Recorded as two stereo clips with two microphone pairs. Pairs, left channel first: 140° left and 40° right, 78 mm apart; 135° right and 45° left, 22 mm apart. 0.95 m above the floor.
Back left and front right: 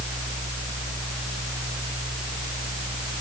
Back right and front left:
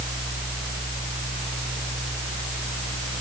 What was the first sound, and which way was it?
Only background noise.